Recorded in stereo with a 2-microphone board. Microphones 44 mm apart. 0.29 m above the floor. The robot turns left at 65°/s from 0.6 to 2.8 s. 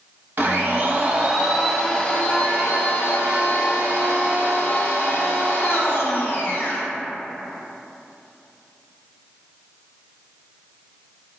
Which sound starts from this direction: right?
A blender, at 0.4 s.